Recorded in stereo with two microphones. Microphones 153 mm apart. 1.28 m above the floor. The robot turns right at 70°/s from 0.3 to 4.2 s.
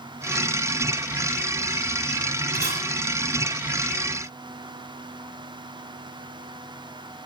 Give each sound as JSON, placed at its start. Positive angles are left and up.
{"t": 2.5, "sound": "a camera shutter", "side_deg": -85, "distance_m": 5.5}